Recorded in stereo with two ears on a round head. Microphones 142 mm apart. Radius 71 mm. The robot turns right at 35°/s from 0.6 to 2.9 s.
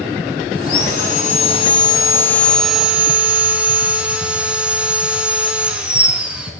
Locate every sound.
0.6 s sawing: 110° left, 1.9 m; by 6.5 s 170° right, 1.9 m